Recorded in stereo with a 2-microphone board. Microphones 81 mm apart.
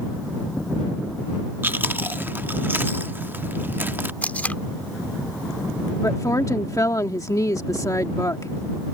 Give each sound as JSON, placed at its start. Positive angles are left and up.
{"t": 1.6, "sound": "chewing", "side_deg": -30}
{"t": 4.2, "sound": "tape being pulled", "side_deg": 20}
{"t": 6.0, "sound": "a woman speaking", "side_deg": 45}